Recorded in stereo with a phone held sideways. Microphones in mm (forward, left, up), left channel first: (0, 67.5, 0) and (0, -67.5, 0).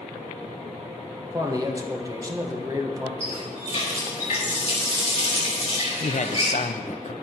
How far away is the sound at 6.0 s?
About 0.6 m.